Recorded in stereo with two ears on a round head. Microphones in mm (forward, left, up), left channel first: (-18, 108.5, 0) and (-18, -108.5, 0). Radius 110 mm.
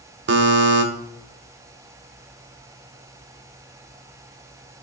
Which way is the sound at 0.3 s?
50° right (ahead or behind).